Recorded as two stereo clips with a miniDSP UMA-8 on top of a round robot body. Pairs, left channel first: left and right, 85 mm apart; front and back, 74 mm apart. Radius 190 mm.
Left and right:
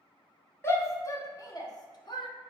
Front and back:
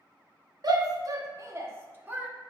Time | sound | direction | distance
0.6 | a shout | 150° left | 1.6 m